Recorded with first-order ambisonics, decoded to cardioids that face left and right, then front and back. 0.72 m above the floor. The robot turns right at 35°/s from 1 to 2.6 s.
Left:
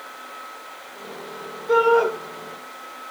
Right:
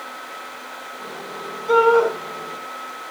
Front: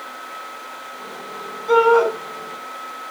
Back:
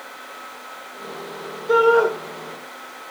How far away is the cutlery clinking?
No cutlery clinking in this recording.